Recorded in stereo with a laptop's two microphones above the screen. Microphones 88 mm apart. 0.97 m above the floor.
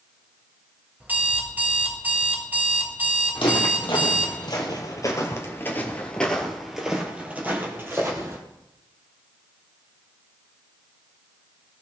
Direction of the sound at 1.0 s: 20° right (ahead or behind).